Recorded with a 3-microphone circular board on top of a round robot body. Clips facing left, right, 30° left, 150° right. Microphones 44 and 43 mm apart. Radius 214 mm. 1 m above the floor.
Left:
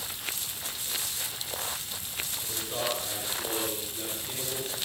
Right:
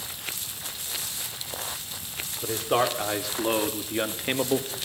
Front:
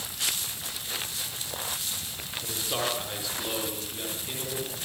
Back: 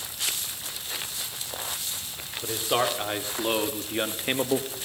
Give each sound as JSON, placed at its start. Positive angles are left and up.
{"t": 2.4, "sound": "a man speaking", "azimuth_deg": -90, "distance_m": 4.5}